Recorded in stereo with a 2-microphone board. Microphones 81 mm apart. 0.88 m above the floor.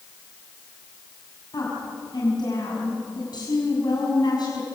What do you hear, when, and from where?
1.5 s a woman speaking: 60° left (ahead or behind), 6.5 m